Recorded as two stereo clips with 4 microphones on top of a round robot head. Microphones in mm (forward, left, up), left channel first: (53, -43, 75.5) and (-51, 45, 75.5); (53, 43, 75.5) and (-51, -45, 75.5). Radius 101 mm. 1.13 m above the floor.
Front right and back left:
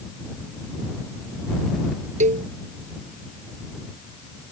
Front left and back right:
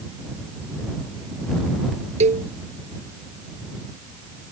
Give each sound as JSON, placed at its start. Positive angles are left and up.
{"t": 2.2, "sound": "a cowbell", "azimuth_deg": 180}